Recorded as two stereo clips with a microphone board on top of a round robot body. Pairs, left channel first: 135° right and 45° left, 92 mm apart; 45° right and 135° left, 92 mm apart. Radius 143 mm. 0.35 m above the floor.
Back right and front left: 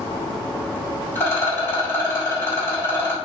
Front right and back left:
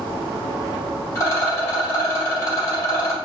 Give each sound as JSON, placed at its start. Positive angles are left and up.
{"t": 1.1, "sound": "a rattle", "azimuth_deg": -85, "distance_m": 1.7}